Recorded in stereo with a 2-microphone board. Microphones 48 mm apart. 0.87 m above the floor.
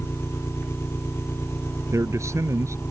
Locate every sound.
0.0 s an engine running: 60° left (ahead or behind)
1.9 s a man speaking: 80° right